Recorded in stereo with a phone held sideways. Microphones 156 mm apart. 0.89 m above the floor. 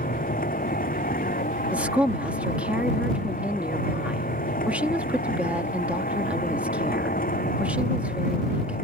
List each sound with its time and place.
0.0 s a machine running: 75° left (ahead or behind)
1.7 s a woman speaking: 10° right (ahead or behind)